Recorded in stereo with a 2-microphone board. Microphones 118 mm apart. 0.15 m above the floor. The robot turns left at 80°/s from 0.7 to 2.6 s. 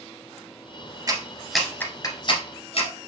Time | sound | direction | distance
1.1 | a clap | 35° right (ahead or behind) | 1.5 m